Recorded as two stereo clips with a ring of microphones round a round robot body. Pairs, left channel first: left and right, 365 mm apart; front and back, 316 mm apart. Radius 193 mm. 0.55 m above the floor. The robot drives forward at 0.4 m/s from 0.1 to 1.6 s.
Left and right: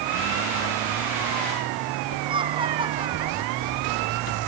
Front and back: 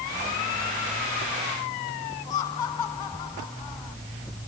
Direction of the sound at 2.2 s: 15° right.